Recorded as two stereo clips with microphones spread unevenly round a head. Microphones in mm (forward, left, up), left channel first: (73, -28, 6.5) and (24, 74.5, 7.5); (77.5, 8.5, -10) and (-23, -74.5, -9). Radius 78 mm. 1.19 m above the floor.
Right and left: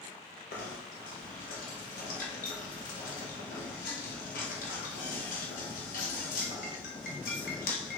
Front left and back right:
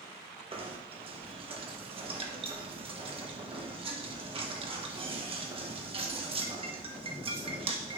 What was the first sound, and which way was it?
Knocking, 90° right.